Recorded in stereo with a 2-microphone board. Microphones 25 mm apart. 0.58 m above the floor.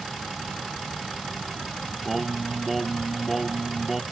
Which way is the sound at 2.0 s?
5° right (ahead or behind).